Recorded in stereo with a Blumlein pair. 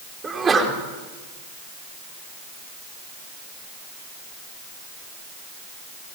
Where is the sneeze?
20° right, 5 m.